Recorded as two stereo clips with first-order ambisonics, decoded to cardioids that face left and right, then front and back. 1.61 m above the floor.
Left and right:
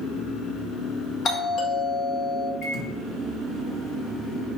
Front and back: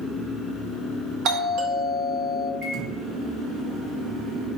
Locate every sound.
1.2 s a doorbell: 145° left, 1.2 m
2.6 s a microwave: 140° left, 2 m